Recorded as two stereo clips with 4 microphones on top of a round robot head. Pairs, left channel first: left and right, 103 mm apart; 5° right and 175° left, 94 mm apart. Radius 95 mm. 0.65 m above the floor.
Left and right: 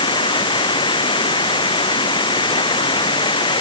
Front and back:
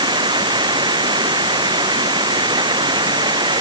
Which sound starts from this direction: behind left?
Running water, at 0.0 s.